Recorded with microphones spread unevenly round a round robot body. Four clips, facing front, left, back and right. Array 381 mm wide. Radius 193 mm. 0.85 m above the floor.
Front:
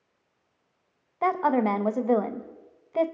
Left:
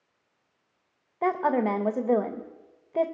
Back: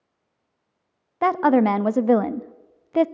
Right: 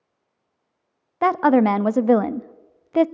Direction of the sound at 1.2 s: 115° right.